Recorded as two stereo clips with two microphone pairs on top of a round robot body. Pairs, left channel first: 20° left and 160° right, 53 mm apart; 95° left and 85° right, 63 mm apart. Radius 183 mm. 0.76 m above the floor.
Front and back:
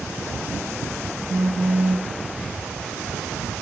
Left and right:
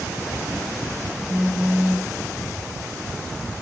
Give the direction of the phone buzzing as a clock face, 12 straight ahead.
5 o'clock.